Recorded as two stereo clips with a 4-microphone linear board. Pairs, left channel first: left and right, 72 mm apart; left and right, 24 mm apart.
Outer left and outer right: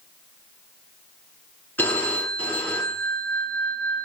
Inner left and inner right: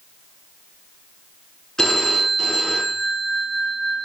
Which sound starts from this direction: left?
A phone ringing, at 1.8 s.